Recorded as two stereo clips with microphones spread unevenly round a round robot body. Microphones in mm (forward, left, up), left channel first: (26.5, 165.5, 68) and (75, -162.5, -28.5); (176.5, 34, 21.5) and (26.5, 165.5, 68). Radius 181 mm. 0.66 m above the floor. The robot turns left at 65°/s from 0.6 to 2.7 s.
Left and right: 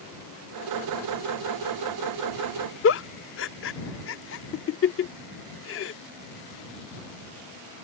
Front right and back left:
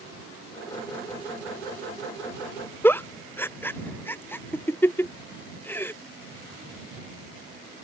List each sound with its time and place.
2.8 s a giggle: 40° left